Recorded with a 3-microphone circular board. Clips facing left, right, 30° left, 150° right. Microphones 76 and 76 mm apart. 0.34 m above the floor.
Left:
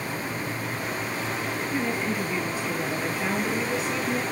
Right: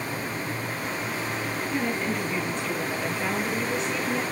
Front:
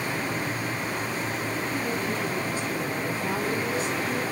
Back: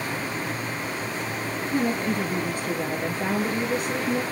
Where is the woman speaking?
175° left, 5.5 m.